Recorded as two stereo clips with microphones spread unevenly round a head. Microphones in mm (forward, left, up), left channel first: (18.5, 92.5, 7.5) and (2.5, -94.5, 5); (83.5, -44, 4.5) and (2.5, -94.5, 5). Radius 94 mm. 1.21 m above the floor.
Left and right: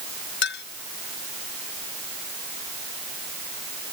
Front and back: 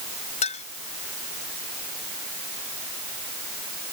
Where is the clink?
55° left.